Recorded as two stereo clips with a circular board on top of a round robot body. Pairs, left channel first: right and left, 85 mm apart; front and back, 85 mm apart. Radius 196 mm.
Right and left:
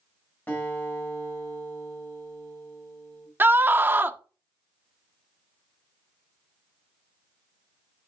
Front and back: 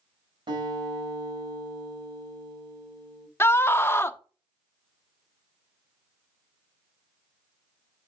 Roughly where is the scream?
Ahead left.